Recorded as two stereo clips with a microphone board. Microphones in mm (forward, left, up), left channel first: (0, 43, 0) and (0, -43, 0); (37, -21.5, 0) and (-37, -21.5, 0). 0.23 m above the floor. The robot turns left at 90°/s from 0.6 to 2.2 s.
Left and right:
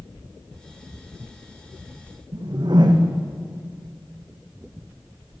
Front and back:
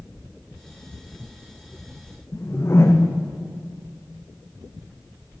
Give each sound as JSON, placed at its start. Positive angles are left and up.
{"t": 2.3, "sound": "a whoosh", "azimuth_deg": -55, "distance_m": 2.0}